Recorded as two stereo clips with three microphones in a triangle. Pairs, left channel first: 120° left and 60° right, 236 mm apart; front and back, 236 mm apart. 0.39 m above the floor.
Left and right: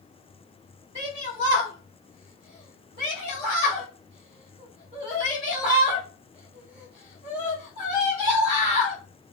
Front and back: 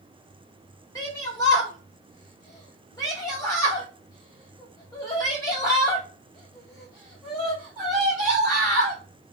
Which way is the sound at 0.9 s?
65° right.